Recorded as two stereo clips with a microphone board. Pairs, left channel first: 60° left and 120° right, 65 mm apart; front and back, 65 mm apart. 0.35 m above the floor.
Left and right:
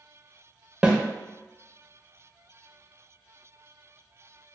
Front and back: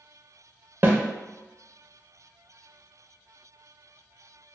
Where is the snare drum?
175° left, 0.5 m.